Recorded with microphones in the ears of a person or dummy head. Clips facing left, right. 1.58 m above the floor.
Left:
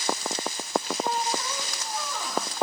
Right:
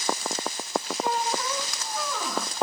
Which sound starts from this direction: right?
A squeak, at 1.0 s.